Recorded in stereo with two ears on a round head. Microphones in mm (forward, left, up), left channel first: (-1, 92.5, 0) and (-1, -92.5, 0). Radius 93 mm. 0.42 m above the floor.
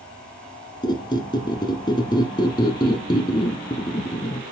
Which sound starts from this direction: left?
A squeak, at 0.8 s.